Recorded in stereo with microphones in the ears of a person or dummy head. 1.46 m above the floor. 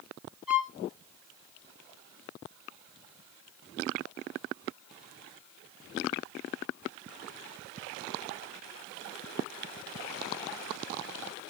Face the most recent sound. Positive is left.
turn(degrees=0)  # may be behind; listen again after turning